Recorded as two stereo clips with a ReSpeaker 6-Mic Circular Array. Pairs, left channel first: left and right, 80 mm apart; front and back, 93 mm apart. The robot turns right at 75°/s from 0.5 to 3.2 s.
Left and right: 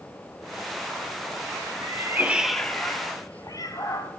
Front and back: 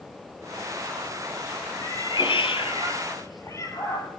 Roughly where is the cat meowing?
Ahead right.